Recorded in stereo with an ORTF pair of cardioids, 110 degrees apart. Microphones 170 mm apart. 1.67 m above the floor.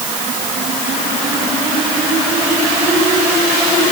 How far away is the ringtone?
No ringtone in this recording.